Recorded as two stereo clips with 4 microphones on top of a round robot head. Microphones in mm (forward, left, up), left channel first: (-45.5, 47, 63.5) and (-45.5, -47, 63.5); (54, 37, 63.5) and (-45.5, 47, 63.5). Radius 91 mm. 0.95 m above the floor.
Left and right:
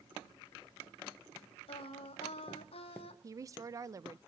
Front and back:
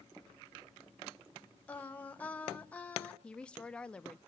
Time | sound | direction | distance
1.7 | singing | 70° left | 2.0 m
3.2 | a woman speaking | 80° right | 0.6 m